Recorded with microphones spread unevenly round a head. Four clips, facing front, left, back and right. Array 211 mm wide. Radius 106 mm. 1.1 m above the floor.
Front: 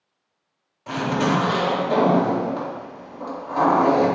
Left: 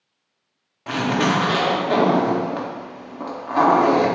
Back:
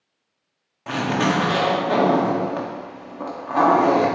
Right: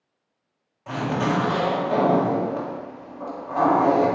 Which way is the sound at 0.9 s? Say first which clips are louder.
Left 4 dB, even; 125° left.